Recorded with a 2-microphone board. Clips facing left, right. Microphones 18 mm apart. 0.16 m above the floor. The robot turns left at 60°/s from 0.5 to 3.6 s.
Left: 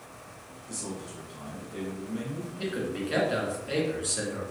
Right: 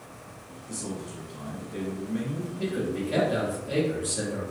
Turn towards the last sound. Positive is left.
turn(degrees=45)